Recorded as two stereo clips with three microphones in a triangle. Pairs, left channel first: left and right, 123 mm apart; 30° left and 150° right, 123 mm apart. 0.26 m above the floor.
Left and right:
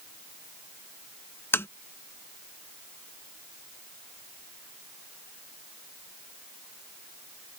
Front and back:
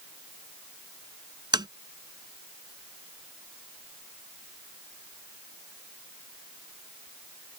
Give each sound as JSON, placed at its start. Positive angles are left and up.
{"t": 1.5, "sound": "tapping", "azimuth_deg": 160}